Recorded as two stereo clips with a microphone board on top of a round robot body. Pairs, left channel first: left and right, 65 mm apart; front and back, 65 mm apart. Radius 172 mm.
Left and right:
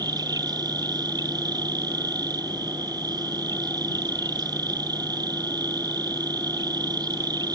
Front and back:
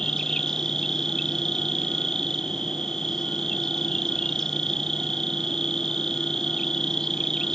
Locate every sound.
0.0 s an insect: 85° right